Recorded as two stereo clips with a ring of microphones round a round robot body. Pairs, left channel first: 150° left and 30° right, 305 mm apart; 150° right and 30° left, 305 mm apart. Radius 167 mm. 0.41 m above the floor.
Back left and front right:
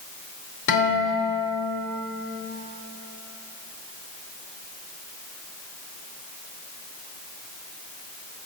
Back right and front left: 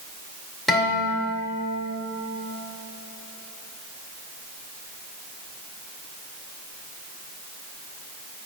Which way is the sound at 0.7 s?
120° left.